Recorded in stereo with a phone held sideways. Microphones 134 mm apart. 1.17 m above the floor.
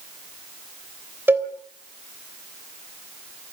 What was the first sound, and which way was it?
A cowbell, 15° right (ahead or behind).